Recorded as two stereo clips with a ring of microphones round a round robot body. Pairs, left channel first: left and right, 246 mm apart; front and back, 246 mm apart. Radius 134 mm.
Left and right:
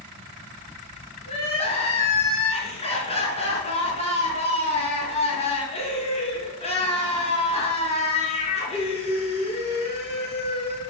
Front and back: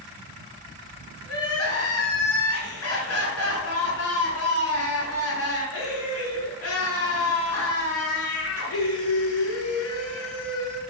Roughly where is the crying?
Ahead left.